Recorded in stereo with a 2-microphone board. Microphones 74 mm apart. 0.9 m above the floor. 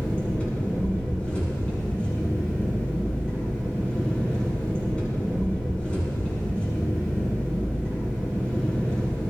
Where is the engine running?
15° left (ahead or behind), 6 m.